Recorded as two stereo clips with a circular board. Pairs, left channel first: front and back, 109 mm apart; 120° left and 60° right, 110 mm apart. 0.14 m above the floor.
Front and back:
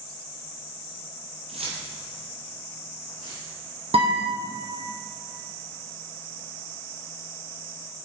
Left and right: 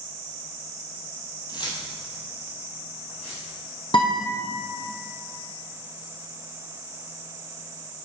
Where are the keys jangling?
170° left, 2.5 m; by 3.5 s 130° left, 4 m.